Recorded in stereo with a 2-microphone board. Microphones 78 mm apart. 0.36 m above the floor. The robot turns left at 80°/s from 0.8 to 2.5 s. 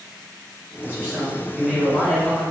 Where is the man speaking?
25° right (ahead or behind), 1.6 m; by 2.4 s 15° left (ahead or behind), 1.6 m.